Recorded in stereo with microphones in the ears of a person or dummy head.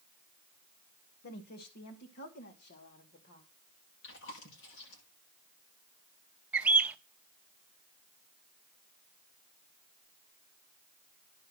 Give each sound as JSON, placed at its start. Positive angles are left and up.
{"t": 1.2, "sound": "a woman speaking", "side_deg": 55, "distance_m": 1.3}
{"t": 4.0, "sound": "chewing", "side_deg": 70, "distance_m": 9.5}
{"t": 6.5, "sound": "a bird", "side_deg": -5, "distance_m": 0.6}